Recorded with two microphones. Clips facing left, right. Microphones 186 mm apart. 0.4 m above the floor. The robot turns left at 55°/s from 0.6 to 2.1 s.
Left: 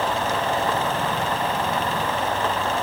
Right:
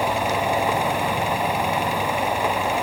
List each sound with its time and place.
Only background noise.